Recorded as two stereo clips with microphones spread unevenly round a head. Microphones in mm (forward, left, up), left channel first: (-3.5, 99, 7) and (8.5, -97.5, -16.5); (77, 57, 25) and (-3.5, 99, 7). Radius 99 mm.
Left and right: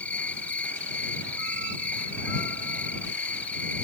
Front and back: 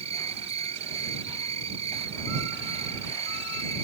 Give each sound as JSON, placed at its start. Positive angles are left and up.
{"t": 0.0, "sound": "an insect", "azimuth_deg": 175}